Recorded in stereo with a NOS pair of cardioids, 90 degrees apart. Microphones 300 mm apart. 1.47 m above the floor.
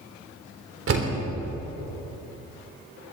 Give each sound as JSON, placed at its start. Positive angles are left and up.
{"t": 0.9, "sound": "a door slam", "azimuth_deg": -45, "distance_m": 3.5}